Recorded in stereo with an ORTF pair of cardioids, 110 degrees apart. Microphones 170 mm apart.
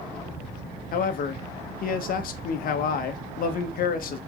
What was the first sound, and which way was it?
A man speaking, 60° left.